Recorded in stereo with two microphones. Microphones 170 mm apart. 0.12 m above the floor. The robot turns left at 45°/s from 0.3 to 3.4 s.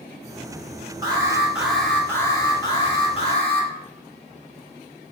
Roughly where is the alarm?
Behind right.